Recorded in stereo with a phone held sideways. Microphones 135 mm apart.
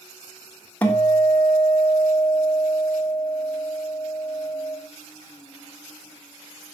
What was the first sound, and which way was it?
A guitar, 10° left (ahead or behind).